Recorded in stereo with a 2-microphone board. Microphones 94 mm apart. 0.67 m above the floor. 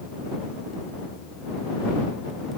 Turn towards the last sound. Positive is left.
No sound to turn to.